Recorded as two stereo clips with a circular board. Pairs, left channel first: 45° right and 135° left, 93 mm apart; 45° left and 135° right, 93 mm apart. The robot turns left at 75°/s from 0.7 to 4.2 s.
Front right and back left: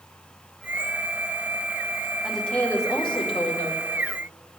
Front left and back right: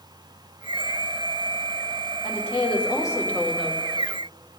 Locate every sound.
2.2 s a woman speaking: 50° left, 2 m; by 3.8 s 65° right, 2 m